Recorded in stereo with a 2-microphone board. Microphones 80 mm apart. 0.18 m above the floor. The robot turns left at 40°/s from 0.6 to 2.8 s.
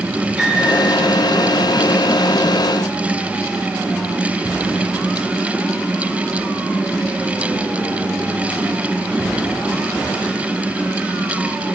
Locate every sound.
0.4 s a piano: centre (ahead or behind), 4 m; by 0.8 s 10° right (ahead or behind), 4 m